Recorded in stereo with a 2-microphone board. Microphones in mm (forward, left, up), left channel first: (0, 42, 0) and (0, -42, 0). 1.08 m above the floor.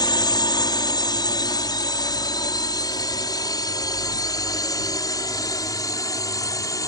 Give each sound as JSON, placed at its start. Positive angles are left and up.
{"t": 0.0, "sound": "a drone", "side_deg": 60}